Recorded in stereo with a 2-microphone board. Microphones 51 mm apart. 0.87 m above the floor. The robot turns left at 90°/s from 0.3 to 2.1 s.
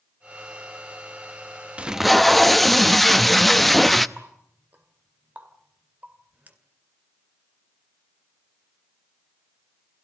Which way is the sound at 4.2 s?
35° right (ahead or behind).